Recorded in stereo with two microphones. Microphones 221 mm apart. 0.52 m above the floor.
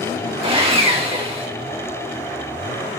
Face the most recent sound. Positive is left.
turn(degrees=-25)  # may be behind; listen again after turning